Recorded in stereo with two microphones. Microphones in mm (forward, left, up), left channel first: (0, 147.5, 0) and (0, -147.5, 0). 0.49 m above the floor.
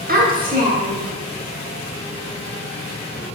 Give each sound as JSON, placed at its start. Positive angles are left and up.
{"t": 0.1, "sound": "a child speaking", "side_deg": -30, "distance_m": 1.0}